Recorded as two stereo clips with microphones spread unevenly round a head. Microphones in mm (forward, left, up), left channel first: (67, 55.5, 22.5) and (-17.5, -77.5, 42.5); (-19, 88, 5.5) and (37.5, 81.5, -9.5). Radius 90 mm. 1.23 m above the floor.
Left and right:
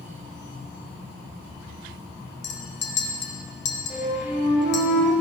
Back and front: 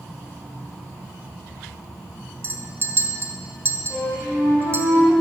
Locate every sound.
2.4 s a clink: 45° left, 1.3 m
3.9 s a flute: 45° right, 3.5 m